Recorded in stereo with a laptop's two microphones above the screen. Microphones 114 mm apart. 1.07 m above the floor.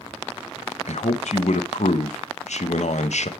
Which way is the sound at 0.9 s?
80° left.